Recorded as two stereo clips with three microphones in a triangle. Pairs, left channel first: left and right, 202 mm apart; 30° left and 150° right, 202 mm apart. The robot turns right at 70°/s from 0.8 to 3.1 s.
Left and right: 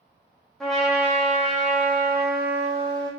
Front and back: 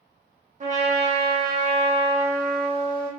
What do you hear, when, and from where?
0.6 s a trumpet: straight behind, 1.0 m; by 3.1 s 20° right, 1.0 m